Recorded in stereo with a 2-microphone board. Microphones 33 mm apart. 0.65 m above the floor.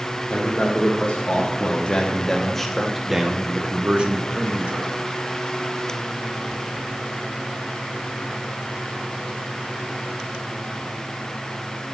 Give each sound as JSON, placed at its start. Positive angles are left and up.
{"t": 0.3, "sound": "a man speaking", "side_deg": 50, "distance_m": 1.6}